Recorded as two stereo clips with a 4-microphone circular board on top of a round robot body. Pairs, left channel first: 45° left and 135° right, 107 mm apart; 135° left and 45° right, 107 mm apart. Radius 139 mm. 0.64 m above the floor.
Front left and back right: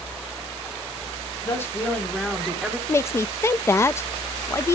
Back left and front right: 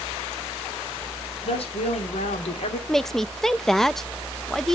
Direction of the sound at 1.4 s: 110° left.